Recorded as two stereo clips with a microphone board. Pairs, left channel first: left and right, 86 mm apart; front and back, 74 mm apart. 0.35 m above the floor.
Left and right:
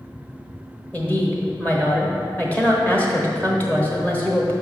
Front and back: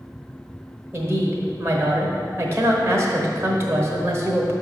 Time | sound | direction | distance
0.9 | a woman speaking | 150° left | 1.0 m